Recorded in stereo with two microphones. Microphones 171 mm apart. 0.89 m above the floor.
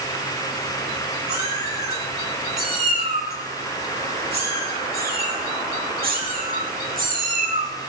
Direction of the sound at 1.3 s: 70° right (ahead or behind).